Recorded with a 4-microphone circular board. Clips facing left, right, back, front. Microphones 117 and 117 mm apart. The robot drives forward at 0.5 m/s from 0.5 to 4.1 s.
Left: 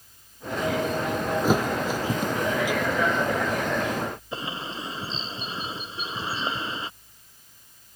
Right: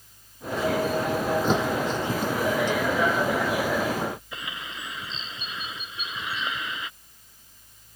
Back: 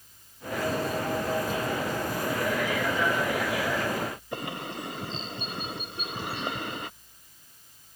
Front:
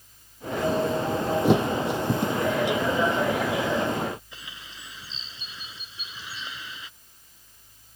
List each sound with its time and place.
1.4 s a thud: 10° left
4.3 s a bird: 150° left